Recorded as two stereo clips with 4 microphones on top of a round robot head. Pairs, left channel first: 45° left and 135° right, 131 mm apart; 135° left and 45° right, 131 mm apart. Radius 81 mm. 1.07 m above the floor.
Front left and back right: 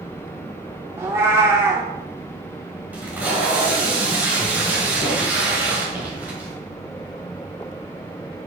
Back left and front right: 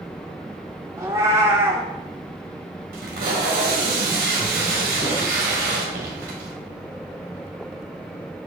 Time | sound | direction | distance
1.0 | a cat meowing | 90° right | 0.6 m
2.9 | tape being pulled | 55° right | 1.7 m